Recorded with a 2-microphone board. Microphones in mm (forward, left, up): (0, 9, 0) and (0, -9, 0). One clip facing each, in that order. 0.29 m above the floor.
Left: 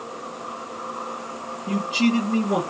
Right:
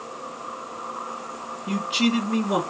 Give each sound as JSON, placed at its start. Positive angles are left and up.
{"t": 1.7, "sound": "a man speaking", "side_deg": -35, "distance_m": 2.5}